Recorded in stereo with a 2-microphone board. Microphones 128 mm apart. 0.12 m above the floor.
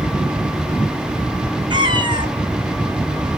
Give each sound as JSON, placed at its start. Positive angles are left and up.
{"t": 1.7, "sound": "a cat meowing", "side_deg": -35, "distance_m": 0.7}